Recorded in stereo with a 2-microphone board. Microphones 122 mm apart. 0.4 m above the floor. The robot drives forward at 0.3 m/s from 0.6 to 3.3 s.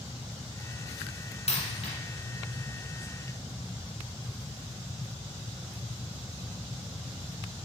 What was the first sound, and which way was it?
A dropped coin, 65° left (ahead or behind).